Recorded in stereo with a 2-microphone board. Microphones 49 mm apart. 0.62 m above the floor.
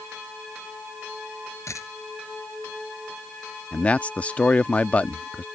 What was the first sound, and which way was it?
A dropped coin, 80° left.